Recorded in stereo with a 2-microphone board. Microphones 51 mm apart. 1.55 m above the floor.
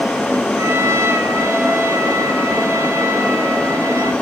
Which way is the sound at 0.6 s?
70° right (ahead or behind).